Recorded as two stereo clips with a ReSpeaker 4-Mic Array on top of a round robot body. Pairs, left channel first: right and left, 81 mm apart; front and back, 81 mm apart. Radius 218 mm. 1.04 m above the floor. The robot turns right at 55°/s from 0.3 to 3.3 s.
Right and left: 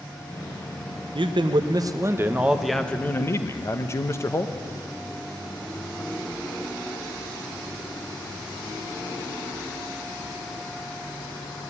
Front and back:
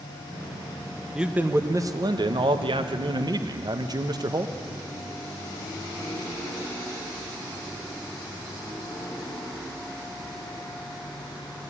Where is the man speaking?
95° left, 1.2 m; by 4.5 s 145° right, 1.2 m.